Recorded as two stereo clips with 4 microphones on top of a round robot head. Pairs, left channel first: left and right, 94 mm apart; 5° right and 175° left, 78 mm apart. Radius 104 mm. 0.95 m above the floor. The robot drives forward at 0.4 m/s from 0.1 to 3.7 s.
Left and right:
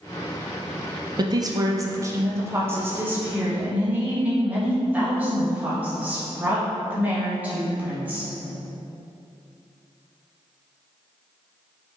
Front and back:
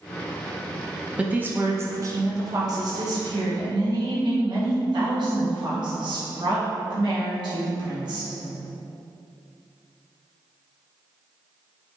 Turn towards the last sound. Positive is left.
turn(degrees=-160)